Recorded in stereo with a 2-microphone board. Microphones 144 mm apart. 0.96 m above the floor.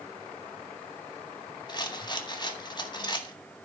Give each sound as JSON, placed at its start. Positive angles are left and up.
{"t": 1.7, "sound": "a rattle", "side_deg": 30, "distance_m": 1.8}